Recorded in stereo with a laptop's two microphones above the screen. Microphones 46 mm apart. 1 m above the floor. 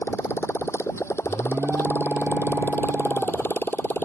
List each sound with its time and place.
0.0 s a motorcycle: 75° left (ahead or behind); by 4.1 s 40° left (ahead or behind)
1.2 s an alarm: 55° right (ahead or behind)